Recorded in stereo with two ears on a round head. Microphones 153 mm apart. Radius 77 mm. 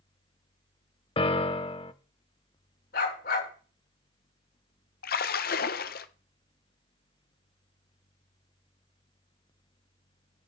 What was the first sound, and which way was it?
A piano, 30° left (ahead or behind).